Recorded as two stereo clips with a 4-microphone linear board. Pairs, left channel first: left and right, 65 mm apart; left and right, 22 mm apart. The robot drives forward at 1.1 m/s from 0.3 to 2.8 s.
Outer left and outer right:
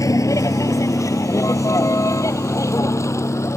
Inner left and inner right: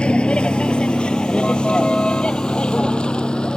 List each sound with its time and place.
0.0 s a vehicle: 55° left (ahead or behind); by 3.6 s 45° left (ahead or behind)